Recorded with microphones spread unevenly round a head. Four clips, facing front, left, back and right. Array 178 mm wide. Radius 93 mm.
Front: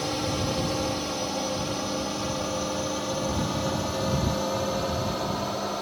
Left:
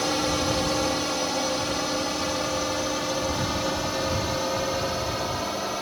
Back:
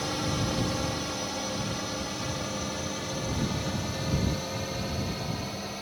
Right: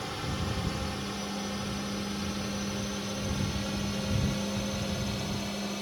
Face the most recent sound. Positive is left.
turn(degrees=40)